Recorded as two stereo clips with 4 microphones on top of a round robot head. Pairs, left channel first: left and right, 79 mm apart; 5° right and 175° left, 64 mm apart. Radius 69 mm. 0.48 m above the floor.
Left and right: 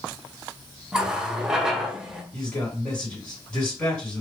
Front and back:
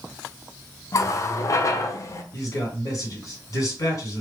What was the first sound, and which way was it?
A running tap, 10° right.